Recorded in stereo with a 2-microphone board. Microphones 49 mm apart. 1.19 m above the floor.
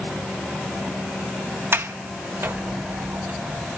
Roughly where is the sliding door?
Right.